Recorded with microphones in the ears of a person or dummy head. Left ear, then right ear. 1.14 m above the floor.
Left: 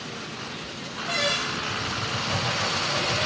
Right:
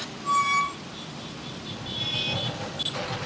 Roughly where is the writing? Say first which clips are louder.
Left 2 dB; left.